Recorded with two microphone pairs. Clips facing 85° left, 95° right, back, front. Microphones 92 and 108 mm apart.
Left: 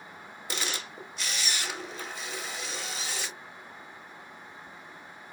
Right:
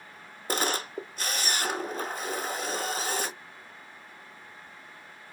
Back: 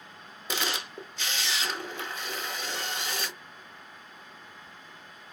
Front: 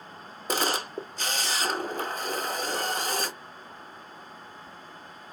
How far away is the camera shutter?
About 0.5 m.